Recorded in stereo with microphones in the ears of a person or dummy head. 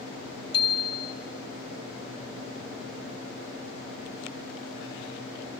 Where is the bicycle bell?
25° left (ahead or behind), 3 m.